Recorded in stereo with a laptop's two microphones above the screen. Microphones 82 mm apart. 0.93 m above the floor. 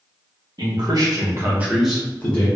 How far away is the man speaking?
About 1.1 m.